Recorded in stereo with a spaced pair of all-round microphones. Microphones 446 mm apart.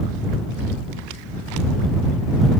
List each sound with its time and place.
Only background noise.